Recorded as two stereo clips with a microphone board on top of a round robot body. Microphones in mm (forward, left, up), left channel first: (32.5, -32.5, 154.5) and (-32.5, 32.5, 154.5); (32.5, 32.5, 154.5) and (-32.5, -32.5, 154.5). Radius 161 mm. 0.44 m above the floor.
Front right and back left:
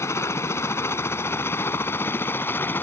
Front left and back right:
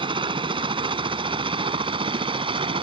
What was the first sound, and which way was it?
A helicopter, 105° right.